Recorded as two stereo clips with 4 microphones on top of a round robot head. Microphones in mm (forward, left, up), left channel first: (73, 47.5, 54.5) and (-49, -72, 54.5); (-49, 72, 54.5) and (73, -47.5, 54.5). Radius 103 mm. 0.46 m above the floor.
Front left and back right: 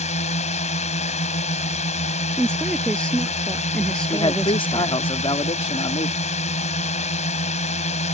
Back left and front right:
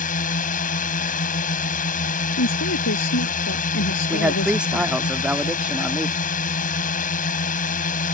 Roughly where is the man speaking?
Ahead left.